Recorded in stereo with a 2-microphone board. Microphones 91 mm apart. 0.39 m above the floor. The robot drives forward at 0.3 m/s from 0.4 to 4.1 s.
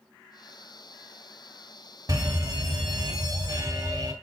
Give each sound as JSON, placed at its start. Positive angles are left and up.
{"t": 2.1, "sound": "a fire alarm", "side_deg": -45, "distance_m": 2.5}